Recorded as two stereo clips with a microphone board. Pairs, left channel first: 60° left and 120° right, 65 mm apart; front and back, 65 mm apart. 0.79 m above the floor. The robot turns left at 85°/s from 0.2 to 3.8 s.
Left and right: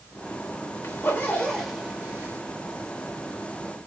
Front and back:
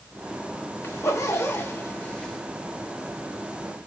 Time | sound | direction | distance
0.8 | a zipper | 40° left | 1.2 m